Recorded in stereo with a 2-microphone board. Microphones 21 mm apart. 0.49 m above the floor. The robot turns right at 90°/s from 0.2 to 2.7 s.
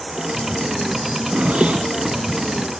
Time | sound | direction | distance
1.1 | a zipper | 65° right (ahead or behind) | 6.5 m